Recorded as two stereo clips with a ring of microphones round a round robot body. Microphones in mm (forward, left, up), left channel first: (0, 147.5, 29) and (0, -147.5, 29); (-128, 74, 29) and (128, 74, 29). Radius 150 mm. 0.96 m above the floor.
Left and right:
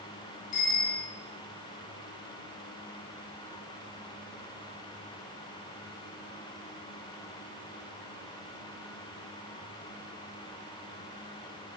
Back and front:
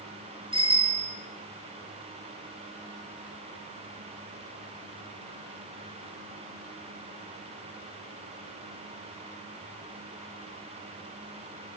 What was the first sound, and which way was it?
A bicycle bell, 70° left.